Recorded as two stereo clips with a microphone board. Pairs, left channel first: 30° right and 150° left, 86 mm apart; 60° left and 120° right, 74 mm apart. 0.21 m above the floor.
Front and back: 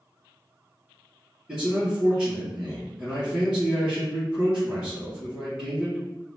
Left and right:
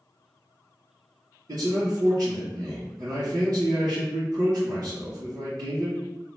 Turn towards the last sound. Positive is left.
turn(degrees=-130)